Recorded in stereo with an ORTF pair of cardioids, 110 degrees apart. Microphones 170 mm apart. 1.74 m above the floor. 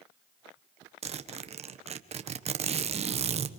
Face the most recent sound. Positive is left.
turn(degrees=-40)